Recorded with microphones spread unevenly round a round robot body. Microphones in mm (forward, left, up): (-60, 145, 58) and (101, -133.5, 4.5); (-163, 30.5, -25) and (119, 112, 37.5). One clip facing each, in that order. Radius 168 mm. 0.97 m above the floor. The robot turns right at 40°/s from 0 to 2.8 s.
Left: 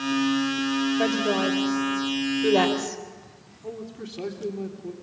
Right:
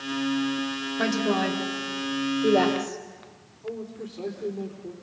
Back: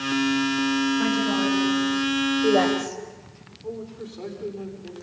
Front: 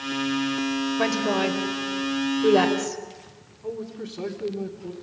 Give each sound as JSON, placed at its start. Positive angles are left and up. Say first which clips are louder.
{"t": 1.0, "sound": "a woman speaking", "louder": "left 1 dB, back 1 dB", "azimuth_deg": 5, "distance_m": 3.5}
{"t": 3.6, "sound": "a man speaking", "louder": "right 1 dB, front 2 dB", "azimuth_deg": 60, "distance_m": 3.5}